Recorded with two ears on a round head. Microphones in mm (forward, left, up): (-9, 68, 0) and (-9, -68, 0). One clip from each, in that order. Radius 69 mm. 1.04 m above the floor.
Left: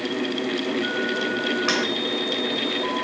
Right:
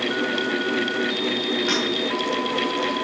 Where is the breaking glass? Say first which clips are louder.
Even; 25° left (ahead or behind), 7.5 m.